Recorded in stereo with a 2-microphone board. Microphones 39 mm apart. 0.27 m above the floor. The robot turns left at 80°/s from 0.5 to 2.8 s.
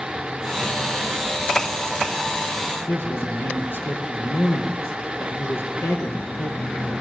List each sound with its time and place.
2.9 s a man speaking: 75° left (ahead or behind), 5 m